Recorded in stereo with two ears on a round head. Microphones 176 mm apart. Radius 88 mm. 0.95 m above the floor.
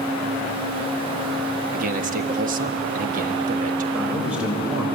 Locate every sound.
1.7 s a man speaking: 45° right (ahead or behind), 1.6 m
3.9 s a man speaking: 5° right (ahead or behind), 5.5 m